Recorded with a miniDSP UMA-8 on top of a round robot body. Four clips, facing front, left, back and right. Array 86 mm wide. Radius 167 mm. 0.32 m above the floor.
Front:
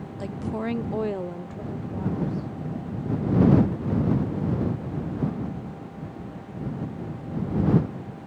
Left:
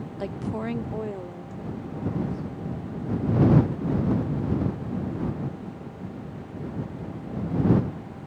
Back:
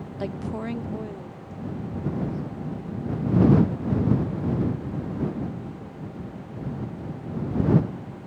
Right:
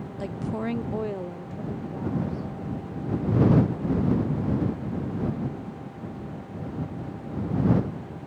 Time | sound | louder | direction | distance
0.2 | a woman speaking | even, front 1 dB | 155° left | ?